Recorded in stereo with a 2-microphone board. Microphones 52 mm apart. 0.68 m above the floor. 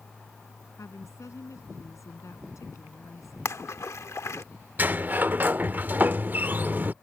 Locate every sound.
0.8 s a woman speaking: 80° left
3.5 s a splash: 70° left (ahead or behind)
4.8 s a sliding door: 35° right (ahead or behind)